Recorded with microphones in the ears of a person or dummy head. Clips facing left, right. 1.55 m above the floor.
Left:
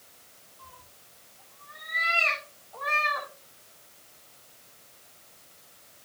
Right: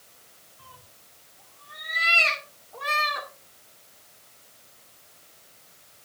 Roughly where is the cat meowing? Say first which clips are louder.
Even; right.